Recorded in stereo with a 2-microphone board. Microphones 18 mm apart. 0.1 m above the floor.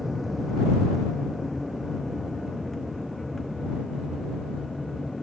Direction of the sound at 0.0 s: 5° right (ahead or behind).